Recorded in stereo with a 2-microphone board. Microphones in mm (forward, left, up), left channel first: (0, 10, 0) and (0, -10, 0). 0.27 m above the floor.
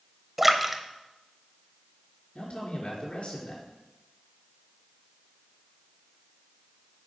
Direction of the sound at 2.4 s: 70° left (ahead or behind).